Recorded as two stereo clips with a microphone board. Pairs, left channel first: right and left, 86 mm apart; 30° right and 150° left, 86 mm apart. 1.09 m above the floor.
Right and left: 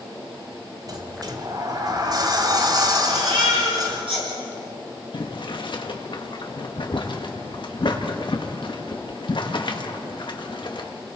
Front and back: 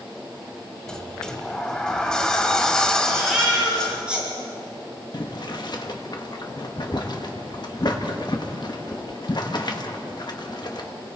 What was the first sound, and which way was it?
A sliding door, 50° left.